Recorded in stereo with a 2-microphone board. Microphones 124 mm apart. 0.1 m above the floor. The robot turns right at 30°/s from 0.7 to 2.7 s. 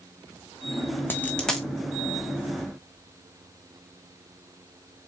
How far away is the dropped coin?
About 1.8 m.